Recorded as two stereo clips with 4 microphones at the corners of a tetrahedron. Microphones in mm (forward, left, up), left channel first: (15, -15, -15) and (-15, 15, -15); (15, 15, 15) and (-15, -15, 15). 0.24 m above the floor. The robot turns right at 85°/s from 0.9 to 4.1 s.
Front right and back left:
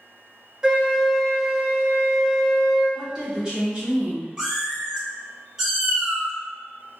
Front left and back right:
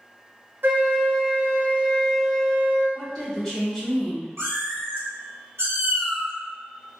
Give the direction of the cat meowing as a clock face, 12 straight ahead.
5 o'clock.